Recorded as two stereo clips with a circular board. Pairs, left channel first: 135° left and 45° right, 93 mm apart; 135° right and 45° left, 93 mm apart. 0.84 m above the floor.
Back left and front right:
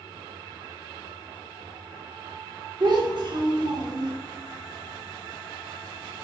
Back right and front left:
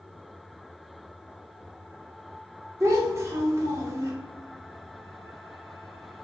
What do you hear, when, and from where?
2.8 s a child speaking: 10° right, 0.8 m